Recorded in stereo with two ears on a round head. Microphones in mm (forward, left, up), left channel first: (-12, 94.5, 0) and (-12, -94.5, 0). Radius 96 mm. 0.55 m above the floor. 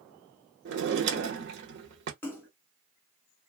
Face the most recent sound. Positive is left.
turn(degrees=10)  # may be behind; listen again after turning